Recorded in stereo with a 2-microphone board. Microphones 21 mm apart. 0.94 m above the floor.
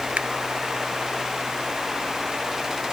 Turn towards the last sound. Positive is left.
turn(degrees=-70)  # may be behind; listen again after turning